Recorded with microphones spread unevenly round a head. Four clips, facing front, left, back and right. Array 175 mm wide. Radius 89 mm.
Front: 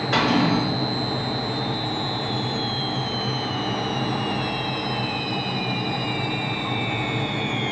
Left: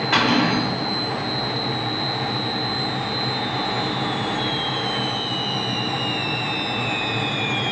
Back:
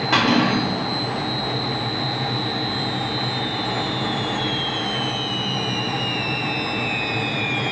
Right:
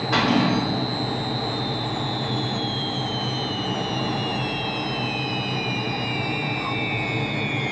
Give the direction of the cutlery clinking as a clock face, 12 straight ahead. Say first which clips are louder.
Left 1 dB, back 2 dB; 7 o'clock.